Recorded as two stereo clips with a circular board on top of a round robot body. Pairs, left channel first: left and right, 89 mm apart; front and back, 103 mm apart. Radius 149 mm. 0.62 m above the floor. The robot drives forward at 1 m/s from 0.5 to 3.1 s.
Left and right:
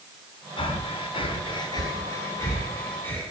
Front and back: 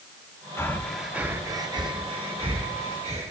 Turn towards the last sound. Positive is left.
turn(degrees=160)